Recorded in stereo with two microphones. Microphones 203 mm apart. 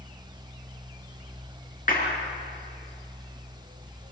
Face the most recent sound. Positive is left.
turn(degrees=40)  # may be behind; listen again after turning